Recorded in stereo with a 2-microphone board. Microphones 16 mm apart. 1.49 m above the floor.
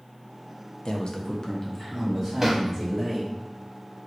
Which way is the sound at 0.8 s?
55° left (ahead or behind).